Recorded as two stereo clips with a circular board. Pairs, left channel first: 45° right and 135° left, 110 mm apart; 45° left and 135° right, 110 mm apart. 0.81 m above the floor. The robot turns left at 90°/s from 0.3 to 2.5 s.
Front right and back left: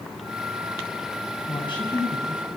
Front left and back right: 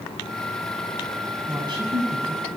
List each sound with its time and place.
1.5 s a woman speaking: 65° right, 6.5 m; by 2.5 s 155° right, 6.5 m